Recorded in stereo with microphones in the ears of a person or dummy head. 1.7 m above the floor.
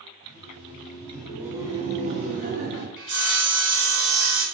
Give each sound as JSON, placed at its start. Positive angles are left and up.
{"t": 0.2, "sound": "laughter", "side_deg": 50, "distance_m": 0.8}
{"t": 3.0, "sound": "sawing", "side_deg": -65, "distance_m": 1.1}